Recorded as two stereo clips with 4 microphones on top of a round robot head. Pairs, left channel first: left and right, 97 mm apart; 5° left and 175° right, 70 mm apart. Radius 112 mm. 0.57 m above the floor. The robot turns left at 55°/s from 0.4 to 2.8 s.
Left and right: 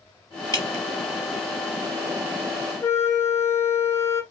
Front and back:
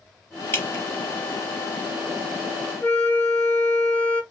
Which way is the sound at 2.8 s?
45° left.